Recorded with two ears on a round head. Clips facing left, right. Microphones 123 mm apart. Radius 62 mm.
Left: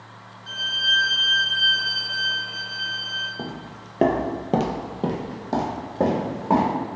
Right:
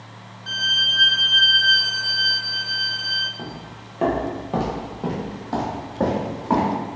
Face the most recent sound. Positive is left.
turn(degrees=15)  # may be behind; listen again after turning